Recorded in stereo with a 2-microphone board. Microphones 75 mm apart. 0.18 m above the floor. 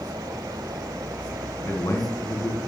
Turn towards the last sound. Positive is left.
turn(degrees=45)  # may be behind; listen again after turning